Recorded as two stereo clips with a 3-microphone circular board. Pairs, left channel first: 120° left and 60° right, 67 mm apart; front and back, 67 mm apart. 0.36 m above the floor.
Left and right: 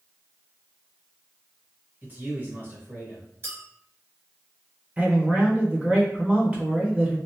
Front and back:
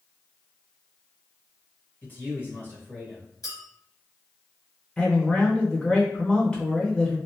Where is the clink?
15° right, 1.3 m.